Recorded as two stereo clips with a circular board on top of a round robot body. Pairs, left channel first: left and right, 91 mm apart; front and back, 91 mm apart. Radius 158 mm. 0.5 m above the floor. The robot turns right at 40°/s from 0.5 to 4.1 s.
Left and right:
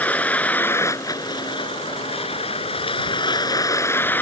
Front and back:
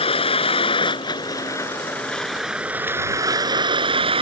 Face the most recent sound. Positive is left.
turn(degrees=160)